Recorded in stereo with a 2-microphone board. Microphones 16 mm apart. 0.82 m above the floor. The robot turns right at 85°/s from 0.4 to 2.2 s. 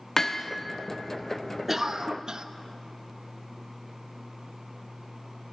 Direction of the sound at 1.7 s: 165° right.